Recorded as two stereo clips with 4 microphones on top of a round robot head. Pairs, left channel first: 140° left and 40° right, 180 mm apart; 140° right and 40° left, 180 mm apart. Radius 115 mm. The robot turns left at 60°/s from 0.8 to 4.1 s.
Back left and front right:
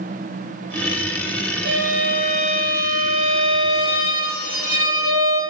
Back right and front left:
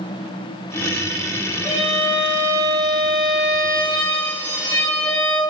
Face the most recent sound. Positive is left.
turn(degrees=140)